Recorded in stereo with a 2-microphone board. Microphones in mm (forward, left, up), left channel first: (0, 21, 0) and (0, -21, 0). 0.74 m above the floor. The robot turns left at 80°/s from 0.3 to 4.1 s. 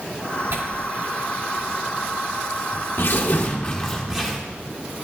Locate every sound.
0.5 s tearing paper: 70° right (ahead or behind), 1.8 m; by 4.4 s 15° right (ahead or behind), 1.8 m